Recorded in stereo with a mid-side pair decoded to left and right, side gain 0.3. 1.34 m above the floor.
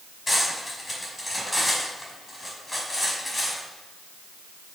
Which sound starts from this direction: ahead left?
Cutlery clinking, at 0.3 s.